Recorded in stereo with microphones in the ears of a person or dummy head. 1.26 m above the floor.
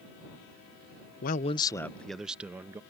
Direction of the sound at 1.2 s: 50° left (ahead or behind).